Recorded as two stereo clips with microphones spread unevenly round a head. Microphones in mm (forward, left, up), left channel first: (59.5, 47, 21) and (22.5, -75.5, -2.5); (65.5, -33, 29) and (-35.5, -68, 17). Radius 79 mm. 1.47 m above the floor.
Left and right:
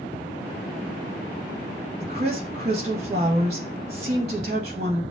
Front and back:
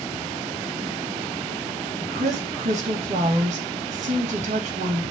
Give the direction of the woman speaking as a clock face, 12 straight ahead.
5 o'clock.